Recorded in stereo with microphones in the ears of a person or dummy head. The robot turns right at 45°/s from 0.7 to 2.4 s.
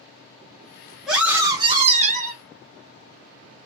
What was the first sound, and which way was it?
A scream, straight behind.